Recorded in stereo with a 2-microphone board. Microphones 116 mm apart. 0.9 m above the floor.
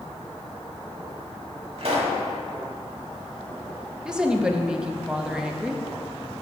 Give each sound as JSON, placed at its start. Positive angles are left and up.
{"t": 1.8, "sound": "a pop", "side_deg": -60, "distance_m": 1.7}
{"t": 4.0, "sound": "a woman speaking", "side_deg": -10, "distance_m": 0.7}